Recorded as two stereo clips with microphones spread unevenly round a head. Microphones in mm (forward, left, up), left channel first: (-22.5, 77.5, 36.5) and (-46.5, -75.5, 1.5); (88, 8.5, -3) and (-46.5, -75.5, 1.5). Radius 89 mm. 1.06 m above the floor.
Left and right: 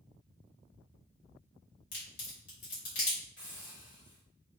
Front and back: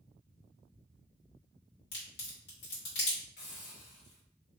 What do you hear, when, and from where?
1.9 s a crack: 45° left, 1.8 m
3.4 s a hiss: 10° left, 1.7 m